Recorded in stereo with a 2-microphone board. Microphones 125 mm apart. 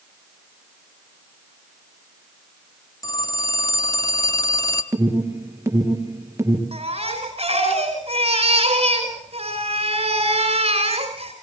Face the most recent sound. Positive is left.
turn(degrees=-50)  # may be behind; listen again after turning